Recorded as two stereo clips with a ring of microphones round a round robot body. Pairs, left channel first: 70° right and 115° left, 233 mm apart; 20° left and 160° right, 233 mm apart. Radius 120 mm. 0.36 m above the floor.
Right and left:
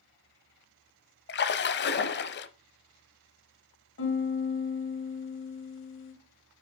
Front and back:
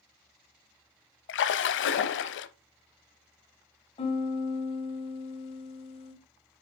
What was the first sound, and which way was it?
A splash, 20° right.